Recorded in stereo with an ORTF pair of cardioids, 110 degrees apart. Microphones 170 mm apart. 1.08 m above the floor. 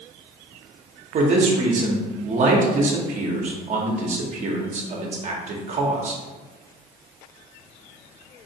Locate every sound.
1.1 s a man speaking: 45° right, 0.8 m